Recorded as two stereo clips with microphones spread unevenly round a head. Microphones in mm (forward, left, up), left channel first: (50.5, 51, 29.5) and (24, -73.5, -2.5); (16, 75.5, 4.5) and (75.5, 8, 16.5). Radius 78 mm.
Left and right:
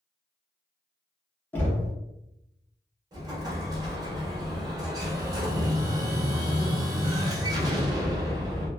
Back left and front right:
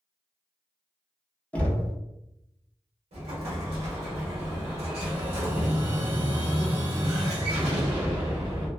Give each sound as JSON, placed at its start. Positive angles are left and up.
{"t": 1.5, "sound": "knocking", "azimuth_deg": 60, "distance_m": 0.7}
{"t": 3.1, "sound": "an explosion", "azimuth_deg": -40, "distance_m": 0.9}